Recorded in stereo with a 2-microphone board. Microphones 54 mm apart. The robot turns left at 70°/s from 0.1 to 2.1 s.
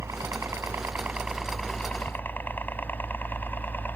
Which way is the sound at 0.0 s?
60° right (ahead or behind).